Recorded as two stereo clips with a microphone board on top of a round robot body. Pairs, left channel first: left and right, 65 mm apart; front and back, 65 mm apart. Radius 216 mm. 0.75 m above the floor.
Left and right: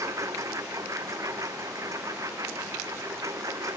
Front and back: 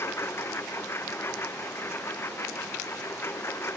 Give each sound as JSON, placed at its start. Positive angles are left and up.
{"t": 0.0, "sound": "a lawn mower", "azimuth_deg": -50}